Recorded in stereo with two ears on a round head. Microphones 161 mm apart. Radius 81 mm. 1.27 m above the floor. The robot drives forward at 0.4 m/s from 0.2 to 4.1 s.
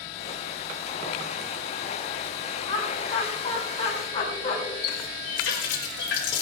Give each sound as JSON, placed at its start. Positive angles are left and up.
{"t": 2.6, "sound": "laughter", "side_deg": 30, "distance_m": 6.5}
{"t": 4.8, "sound": "a running tap", "side_deg": 75, "distance_m": 3.0}